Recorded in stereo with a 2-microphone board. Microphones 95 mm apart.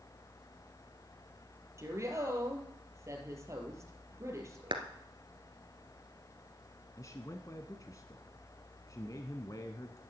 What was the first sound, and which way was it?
A woman speaking, 30° right (ahead or behind).